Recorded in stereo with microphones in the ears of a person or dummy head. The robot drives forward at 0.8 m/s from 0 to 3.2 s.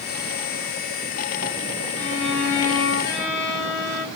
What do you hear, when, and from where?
2.0 s a violin: 70° left (ahead or behind), 4 m; by 4.1 s 80° left, 4 m